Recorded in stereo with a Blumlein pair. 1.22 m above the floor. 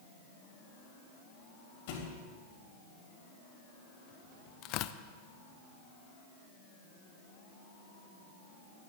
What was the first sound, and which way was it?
A thud, 45° left.